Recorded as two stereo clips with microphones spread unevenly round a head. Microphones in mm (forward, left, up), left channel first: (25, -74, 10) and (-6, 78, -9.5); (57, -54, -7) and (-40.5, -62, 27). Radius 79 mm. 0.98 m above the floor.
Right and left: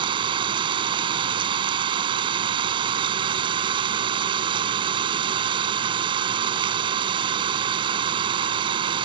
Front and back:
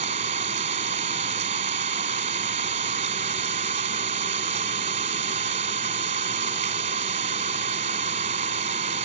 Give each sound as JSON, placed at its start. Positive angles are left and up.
{"t": 0.0, "sound": "an engine running", "azimuth_deg": 165}